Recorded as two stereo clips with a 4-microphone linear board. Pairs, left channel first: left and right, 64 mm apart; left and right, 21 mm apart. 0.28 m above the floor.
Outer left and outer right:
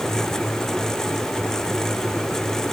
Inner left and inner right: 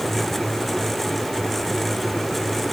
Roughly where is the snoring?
No snoring in this recording.